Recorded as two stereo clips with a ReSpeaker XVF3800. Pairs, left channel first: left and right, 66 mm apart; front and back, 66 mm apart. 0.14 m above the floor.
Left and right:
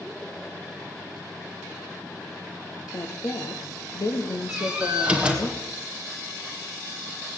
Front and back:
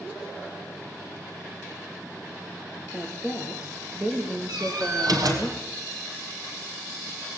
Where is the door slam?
165° right, 3.5 m.